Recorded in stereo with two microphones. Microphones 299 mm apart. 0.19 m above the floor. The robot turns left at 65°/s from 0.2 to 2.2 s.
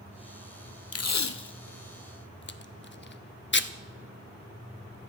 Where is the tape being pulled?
55° left (ahead or behind), 0.6 m; by 3.7 s 40° left (ahead or behind), 0.6 m.